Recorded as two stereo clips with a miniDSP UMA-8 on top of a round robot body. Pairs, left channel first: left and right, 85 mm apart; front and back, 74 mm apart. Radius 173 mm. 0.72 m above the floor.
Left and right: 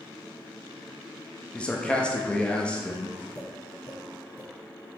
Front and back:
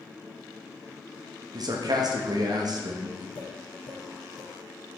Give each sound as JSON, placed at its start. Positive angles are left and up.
{"t": 1.5, "sound": "a man speaking", "azimuth_deg": 165, "distance_m": 1.0}
{"t": 3.4, "sound": "tapping", "azimuth_deg": 40, "distance_m": 2.5}